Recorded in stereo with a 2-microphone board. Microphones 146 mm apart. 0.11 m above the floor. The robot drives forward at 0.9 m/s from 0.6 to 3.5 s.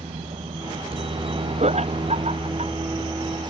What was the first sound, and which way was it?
A helicopter, 40° right (ahead or behind).